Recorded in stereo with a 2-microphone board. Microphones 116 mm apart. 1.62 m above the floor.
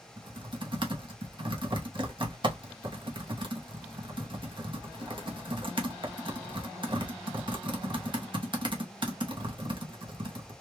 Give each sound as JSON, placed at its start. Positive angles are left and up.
{"t": 0.2, "sound": "typing on a keyboard", "side_deg": -45, "distance_m": 0.9}